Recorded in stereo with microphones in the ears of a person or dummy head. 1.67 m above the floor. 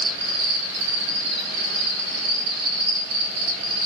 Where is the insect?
50° right (ahead or behind), 1.0 m.